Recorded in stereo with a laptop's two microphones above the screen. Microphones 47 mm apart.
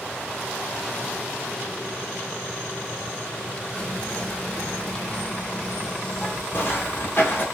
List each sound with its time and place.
3.8 s whispering: 20° left (ahead or behind), 0.5 m
6.5 s footsteps: 45° left (ahead or behind), 1.4 m